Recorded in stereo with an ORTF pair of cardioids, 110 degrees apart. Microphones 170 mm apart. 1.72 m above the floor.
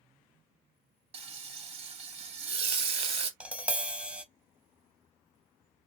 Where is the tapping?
10° right, 0.6 m.